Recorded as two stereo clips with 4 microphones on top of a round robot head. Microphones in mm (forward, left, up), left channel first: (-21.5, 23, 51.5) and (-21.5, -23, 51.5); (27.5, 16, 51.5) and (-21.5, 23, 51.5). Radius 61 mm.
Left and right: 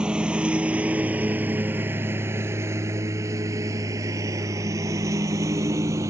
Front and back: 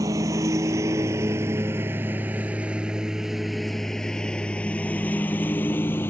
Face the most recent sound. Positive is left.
turn(degrees=-65)